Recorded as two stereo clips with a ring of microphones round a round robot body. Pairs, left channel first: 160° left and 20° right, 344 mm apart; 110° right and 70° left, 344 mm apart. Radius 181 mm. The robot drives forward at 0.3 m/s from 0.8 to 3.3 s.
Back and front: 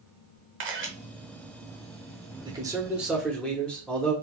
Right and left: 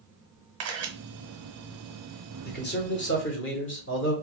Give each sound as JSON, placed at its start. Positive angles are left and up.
{"t": 0.6, "sound": "a camera shutter", "azimuth_deg": 25, "distance_m": 0.8}
{"t": 2.5, "sound": "a man speaking", "azimuth_deg": -85, "distance_m": 0.9}